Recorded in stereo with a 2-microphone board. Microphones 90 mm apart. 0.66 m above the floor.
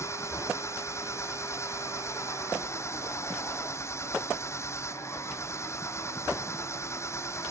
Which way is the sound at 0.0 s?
30° left (ahead or behind).